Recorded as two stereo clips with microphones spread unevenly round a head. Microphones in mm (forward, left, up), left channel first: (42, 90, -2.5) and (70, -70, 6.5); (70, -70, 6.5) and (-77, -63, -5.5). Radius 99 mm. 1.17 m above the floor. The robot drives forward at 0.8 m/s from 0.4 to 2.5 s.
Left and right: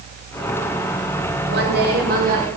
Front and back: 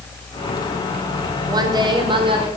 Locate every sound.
1.5 s a woman speaking: 120° right, 2.5 m; by 2.5 s 135° right, 3 m